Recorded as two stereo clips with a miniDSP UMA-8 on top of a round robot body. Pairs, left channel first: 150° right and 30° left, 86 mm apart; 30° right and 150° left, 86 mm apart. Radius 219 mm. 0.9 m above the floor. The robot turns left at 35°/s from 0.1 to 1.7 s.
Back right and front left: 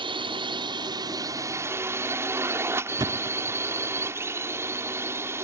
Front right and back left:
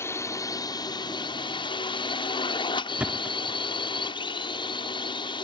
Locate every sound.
0.0 s a drone: 30° left; by 5.5 s 30° right
3.0 s a thud: 75° left